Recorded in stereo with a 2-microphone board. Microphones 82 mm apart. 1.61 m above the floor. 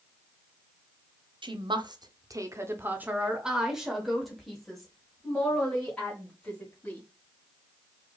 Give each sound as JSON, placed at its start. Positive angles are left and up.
{"t": 1.4, "sound": "a woman speaking", "side_deg": -80, "distance_m": 0.8}